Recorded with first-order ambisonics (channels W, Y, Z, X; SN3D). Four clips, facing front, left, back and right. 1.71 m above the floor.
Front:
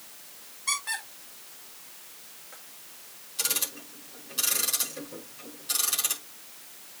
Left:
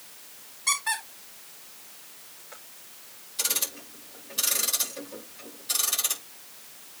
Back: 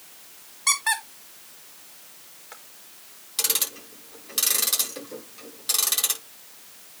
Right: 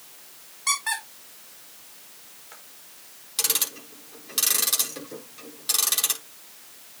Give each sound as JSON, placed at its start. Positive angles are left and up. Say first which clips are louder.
{"t": 0.7, "sound": "a squeak", "louder": "right 1 dB, back 7 dB", "azimuth_deg": -165, "distance_m": 3.5}
{"t": 3.4, "sound": "ticking", "louder": "right 3 dB, back 4 dB", "azimuth_deg": -135, "distance_m": 6.5}